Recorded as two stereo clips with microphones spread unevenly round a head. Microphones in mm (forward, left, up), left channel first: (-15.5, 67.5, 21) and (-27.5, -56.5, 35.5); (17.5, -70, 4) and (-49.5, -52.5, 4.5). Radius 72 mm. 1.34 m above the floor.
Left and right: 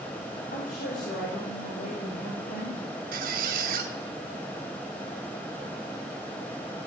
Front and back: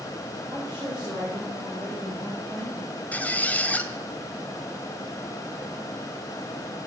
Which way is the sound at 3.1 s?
80° right.